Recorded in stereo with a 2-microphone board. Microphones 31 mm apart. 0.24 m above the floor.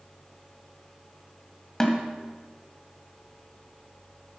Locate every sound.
1.8 s a snare drum: 20° left (ahead or behind), 1.5 m